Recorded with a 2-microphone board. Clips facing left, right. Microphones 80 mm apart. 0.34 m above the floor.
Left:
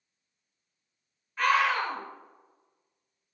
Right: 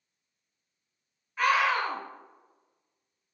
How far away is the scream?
About 0.9 m.